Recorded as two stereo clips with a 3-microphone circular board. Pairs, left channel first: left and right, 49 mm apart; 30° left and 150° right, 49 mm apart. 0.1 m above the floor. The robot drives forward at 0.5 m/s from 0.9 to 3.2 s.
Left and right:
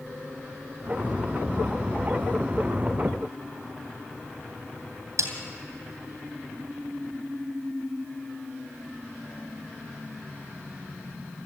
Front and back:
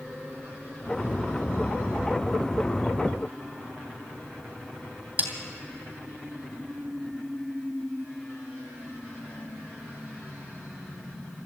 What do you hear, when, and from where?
5.2 s a snare drum: 95° right, 2.5 m